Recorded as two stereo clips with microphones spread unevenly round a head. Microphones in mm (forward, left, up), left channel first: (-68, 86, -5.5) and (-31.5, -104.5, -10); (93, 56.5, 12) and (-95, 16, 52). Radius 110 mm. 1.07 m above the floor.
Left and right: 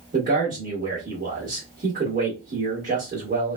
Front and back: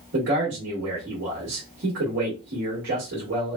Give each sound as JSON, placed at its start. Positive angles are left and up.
{"t": 0.1, "sound": "a man speaking", "azimuth_deg": -130, "distance_m": 1.7}